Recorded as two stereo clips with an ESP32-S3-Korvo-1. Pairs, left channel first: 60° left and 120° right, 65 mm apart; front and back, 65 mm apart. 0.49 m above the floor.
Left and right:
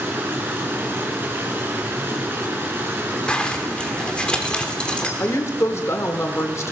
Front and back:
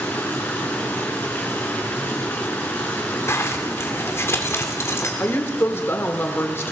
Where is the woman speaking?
40° left, 0.9 m.